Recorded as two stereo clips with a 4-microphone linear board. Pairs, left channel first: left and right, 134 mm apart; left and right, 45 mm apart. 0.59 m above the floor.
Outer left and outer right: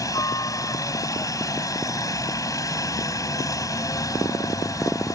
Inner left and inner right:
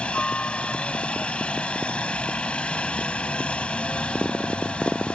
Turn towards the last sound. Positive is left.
turn(degrees=25)  # may be behind; listen again after turning